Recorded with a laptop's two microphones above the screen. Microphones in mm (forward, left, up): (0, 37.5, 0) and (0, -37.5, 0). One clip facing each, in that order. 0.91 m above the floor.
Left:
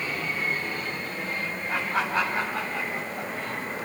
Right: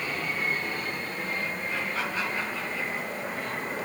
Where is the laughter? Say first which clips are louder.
Left 8 dB; 80° left, 4 m; by 3.3 s 65° left (ahead or behind), 3 m.